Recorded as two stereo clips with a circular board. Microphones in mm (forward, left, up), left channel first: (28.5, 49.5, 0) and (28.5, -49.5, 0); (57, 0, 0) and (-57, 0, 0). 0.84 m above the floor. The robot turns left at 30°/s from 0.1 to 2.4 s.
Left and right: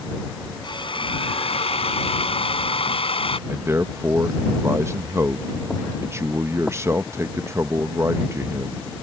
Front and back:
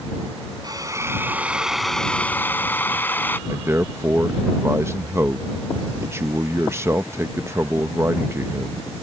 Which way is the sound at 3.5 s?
130° right.